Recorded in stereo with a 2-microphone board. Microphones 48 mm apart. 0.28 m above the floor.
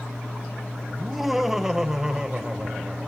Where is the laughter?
Centre (ahead or behind), 1.3 m; by 3.1 s 20° right (ahead or behind), 1.5 m.